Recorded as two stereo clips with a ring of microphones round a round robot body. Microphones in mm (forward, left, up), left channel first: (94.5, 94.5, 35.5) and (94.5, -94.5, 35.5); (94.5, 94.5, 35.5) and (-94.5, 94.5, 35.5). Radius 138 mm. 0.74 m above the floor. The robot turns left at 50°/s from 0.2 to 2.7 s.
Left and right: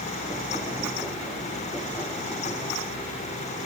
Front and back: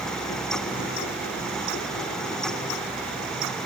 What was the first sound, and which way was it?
Only background noise.